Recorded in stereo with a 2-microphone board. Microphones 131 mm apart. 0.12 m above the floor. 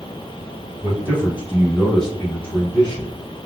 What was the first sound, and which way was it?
A man speaking, 20° right (ahead or behind).